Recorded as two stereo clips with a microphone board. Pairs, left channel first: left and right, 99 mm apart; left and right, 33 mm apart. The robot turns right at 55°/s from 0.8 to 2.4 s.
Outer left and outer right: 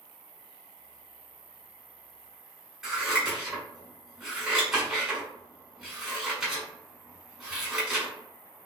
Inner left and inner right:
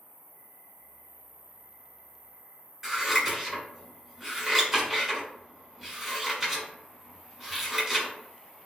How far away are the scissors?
About 1.4 m.